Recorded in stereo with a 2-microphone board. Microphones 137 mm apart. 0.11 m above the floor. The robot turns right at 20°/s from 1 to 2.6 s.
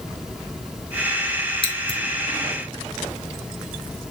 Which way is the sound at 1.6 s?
45° left (ahead or behind).